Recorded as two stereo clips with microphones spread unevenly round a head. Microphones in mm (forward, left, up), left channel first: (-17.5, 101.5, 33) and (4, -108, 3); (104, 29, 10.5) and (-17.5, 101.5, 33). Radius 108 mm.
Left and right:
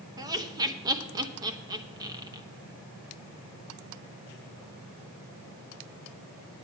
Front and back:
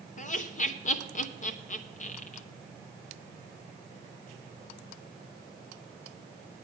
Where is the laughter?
15° right, 1.1 m.